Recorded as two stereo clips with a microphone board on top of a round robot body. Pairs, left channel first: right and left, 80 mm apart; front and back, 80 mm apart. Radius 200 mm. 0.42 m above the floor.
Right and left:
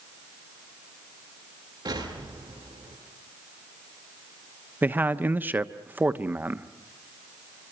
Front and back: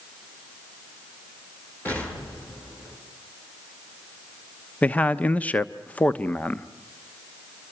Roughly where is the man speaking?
Ahead left.